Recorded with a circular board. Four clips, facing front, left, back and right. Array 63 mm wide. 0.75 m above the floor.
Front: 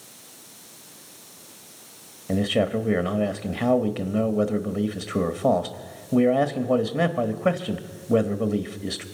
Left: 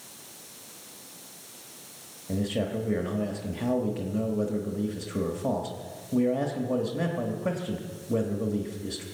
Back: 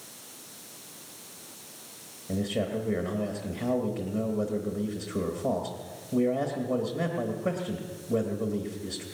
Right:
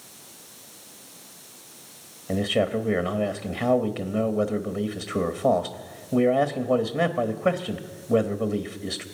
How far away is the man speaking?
About 1.1 m.